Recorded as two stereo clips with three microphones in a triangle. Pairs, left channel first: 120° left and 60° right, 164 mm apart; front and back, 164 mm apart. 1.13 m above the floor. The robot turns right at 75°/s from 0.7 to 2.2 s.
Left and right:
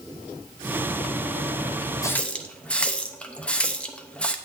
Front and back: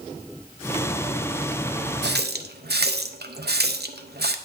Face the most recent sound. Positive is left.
turn(degrees=-155)